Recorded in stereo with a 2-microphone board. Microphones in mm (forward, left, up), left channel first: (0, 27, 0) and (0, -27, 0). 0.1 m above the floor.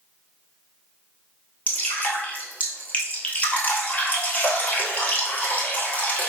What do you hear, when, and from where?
1.7 s dripping: 25° left (ahead or behind), 1.2 m